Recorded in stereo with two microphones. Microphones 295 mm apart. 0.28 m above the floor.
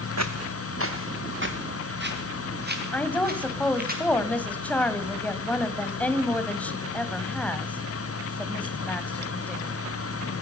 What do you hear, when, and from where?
0.2 s footsteps: 60° right (ahead or behind), 1.2 m; by 3.9 s 30° right (ahead or behind), 5 m
2.9 s a woman speaking: 5° left (ahead or behind), 1.5 m